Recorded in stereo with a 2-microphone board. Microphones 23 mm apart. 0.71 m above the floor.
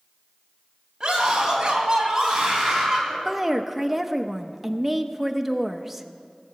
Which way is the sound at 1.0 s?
30° right (ahead or behind).